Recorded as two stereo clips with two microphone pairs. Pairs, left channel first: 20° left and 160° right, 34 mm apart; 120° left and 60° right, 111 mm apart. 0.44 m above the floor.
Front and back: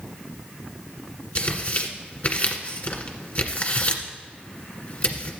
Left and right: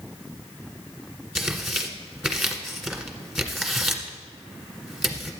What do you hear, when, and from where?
1.4 s tearing paper: 30° left, 1.5 m